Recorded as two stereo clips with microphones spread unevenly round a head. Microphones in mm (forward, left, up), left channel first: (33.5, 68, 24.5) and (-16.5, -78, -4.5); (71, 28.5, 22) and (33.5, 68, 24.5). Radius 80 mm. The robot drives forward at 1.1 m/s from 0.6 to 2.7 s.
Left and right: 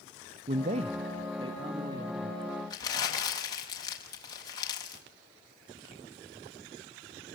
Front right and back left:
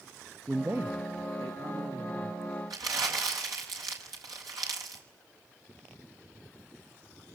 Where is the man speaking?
150° right, 0.7 m; by 2.6 s 175° right, 3 m.